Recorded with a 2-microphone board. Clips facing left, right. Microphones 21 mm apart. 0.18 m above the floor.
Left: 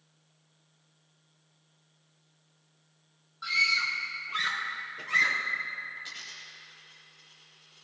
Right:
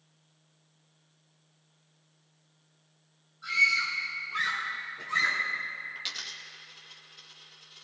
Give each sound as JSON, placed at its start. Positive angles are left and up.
{"t": 3.4, "sound": "a scream", "side_deg": 75, "distance_m": 5.0}
{"t": 6.0, "sound": "a dropped coin", "side_deg": -70, "distance_m": 2.5}